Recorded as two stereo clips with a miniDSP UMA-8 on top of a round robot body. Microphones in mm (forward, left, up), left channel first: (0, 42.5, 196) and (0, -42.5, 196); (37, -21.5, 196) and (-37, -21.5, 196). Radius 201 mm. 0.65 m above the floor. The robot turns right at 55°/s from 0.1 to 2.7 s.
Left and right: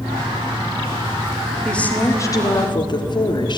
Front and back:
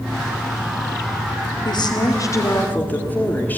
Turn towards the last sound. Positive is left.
turn(degrees=65)